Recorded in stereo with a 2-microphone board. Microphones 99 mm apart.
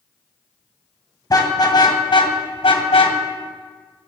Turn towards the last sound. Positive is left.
turn(degrees=70)  # may be behind; listen again after turning